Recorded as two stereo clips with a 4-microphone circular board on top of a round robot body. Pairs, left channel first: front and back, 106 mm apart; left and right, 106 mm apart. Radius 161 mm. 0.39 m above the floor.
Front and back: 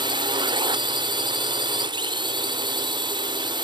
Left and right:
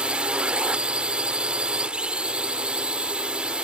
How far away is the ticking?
No ticking in this recording.